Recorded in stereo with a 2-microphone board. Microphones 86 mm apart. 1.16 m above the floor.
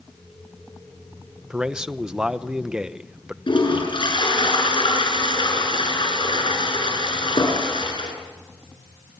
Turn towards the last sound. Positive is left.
turn(degrees=75)  # may be behind; listen again after turning